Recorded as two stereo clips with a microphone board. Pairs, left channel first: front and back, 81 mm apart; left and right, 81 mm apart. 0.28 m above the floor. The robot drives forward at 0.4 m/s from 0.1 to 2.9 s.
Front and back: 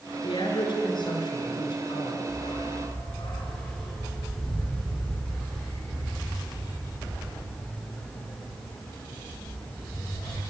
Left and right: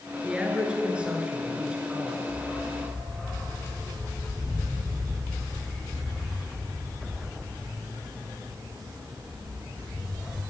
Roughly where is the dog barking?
Ahead.